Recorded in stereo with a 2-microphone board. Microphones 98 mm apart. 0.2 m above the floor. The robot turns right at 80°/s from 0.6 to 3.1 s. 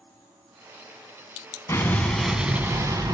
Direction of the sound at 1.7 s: 135° left.